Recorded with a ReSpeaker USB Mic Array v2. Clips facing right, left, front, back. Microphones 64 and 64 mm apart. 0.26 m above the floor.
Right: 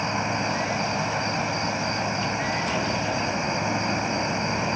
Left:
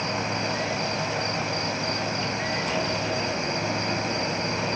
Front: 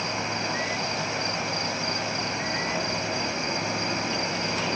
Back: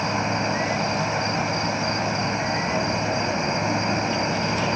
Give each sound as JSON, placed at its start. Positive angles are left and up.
{"t": 0.0, "sound": "an insect", "azimuth_deg": -140, "distance_m": 2.5}